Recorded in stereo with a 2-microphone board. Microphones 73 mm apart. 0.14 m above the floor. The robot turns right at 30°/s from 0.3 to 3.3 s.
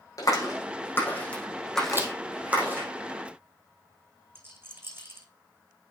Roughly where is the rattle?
Right.